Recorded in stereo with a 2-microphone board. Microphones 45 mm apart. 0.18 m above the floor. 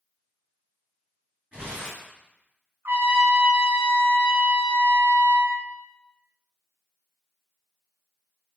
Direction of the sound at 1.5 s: 20° right (ahead or behind).